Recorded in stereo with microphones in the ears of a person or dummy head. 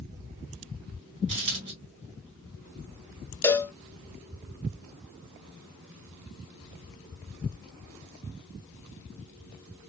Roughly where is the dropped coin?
Right.